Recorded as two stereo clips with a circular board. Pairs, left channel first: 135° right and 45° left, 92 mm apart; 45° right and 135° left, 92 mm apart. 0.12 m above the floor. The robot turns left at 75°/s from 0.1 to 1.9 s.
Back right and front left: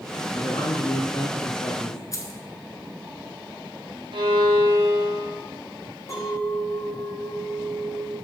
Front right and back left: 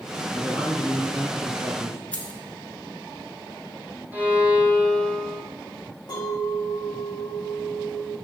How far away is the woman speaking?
About 1.7 m.